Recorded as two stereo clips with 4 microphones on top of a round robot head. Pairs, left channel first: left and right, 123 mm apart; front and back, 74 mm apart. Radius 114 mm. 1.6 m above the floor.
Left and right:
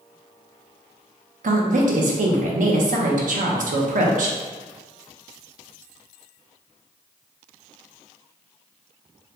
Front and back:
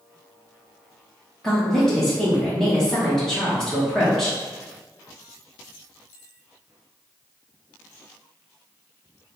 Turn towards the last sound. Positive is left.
turn(degrees=-85)